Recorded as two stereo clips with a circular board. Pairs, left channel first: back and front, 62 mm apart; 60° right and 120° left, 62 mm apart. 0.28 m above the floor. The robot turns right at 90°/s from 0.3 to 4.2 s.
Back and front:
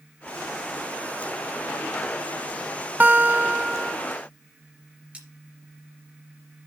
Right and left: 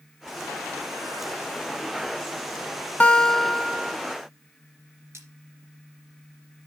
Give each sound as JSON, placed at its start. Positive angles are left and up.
{"t": 3.0, "sound": "a guitar", "azimuth_deg": -25, "distance_m": 0.6}
{"t": 5.1, "sound": "cutlery clinking", "azimuth_deg": 70, "distance_m": 3.5}